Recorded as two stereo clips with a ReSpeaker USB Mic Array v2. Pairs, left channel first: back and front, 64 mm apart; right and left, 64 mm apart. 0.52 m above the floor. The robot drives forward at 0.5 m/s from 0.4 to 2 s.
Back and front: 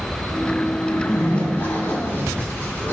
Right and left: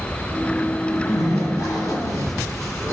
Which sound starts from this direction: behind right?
A zipper, at 0.9 s.